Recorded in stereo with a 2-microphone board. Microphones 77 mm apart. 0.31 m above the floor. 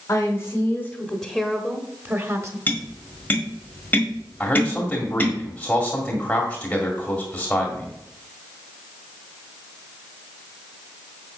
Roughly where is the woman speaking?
Left.